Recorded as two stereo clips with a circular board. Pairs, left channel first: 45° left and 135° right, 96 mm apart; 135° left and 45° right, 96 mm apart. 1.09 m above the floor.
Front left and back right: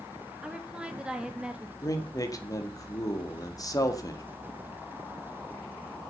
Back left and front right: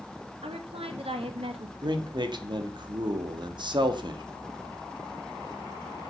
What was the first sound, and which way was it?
A woman speaking, 55° right.